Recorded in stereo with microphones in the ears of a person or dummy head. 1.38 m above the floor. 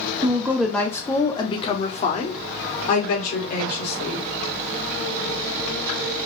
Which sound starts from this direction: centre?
A woman speaking, at 0.2 s.